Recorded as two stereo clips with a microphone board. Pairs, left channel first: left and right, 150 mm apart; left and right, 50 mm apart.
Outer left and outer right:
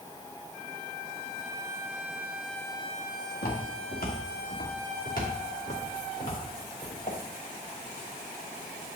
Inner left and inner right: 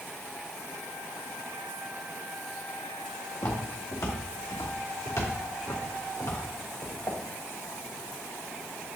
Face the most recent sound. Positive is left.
turn(degrees=65)  # may be behind; listen again after turning